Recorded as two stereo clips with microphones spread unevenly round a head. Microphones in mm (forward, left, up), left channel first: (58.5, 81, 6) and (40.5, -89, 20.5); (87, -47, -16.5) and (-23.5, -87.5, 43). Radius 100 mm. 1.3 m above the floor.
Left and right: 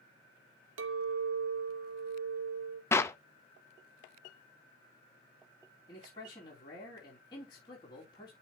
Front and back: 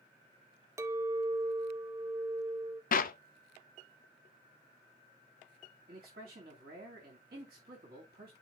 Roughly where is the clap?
Ahead.